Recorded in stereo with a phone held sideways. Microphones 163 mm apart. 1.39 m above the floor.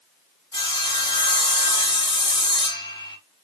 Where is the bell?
No bell in this recording.